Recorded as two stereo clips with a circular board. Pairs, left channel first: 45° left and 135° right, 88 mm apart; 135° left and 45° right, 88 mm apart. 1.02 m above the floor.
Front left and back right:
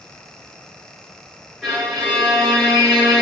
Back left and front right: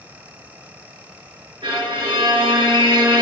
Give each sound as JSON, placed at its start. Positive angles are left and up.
{"t": 1.6, "sound": "a violin", "azimuth_deg": -40, "distance_m": 0.9}